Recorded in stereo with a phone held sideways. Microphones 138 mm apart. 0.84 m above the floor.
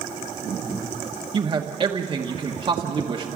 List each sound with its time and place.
1.3 s a man speaking: 40° right (ahead or behind), 1.2 m